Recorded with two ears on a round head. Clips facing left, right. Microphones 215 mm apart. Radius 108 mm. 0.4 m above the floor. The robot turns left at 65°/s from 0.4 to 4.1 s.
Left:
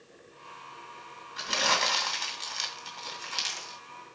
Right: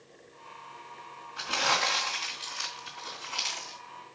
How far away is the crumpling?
About 2 m.